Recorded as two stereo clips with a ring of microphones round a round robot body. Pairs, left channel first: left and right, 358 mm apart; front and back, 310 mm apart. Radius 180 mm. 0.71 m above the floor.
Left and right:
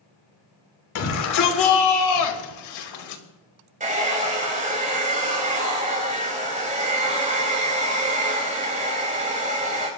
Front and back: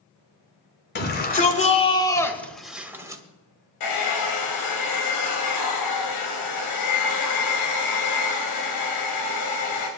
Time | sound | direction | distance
0.9 | a shout | 55° left | 3 m
3.8 | a hair dryer | 20° right | 4.5 m